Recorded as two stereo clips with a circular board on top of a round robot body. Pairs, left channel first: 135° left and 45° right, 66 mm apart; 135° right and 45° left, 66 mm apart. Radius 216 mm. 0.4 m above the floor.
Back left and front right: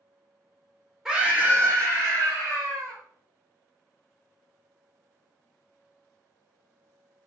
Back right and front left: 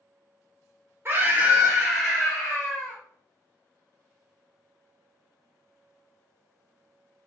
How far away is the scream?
About 1.4 m.